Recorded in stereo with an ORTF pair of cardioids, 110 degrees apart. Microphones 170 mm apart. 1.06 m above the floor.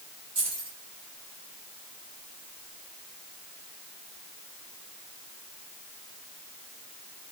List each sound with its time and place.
0.3 s keys jangling: 35° right, 2.5 m